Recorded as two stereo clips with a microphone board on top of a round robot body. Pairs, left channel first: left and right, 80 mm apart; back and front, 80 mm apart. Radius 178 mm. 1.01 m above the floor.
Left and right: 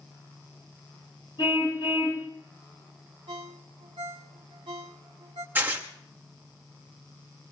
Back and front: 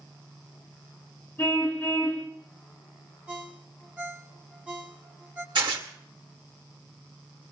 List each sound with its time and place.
1.4 s a car horn: 110° left, 5 m
3.3 s a ringtone: 75° right, 1.4 m
5.5 s tearing paper: 25° right, 1.9 m